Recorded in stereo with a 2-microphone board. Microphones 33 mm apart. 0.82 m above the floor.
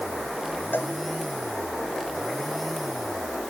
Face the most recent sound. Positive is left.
turn(degrees=75)  # may be behind; listen again after turning